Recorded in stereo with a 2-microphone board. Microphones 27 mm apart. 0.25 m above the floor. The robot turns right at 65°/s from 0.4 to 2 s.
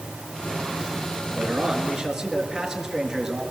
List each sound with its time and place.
1.3 s a man speaking: 60° right, 4 m; by 3.4 s 15° right, 4 m